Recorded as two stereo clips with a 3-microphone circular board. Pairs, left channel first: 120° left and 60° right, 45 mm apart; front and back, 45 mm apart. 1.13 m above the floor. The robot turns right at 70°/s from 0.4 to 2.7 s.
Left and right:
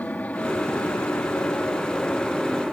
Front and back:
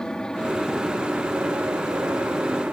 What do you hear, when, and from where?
0.0 s an aircraft: 70° left; by 2.7 s 130° right